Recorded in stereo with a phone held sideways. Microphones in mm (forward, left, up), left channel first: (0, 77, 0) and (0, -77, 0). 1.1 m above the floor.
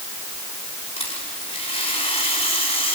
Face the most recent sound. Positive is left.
turn(degrees=40)  # may be behind; listen again after turning